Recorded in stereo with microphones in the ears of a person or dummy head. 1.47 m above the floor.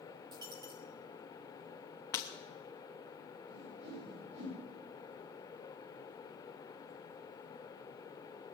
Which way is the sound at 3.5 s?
80° right.